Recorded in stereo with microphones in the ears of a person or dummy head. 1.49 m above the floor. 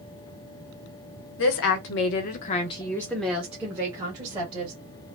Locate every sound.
1.4 s a woman speaking: 70° left (ahead or behind), 1.1 m; by 4.7 s 25° right (ahead or behind), 1.7 m